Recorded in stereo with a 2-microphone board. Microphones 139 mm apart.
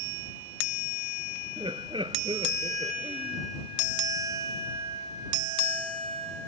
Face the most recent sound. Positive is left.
turn(degrees=-35)  # may be behind; listen again after turning